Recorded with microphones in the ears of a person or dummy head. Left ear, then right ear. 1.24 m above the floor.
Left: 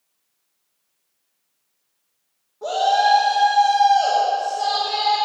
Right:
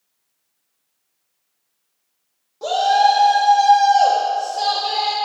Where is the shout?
75° right (ahead or behind), 2 m.